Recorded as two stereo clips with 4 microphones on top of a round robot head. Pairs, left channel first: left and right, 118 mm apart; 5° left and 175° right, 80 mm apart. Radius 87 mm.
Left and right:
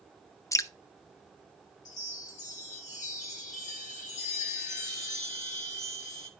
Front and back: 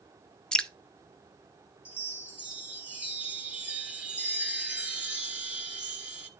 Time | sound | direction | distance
0.5 | dripping | 75° left | 0.5 m
1.9 | a chime | 110° left | 1.1 m